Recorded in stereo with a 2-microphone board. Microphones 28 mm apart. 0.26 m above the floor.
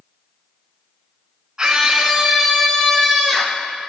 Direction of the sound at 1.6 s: 25° right (ahead or behind).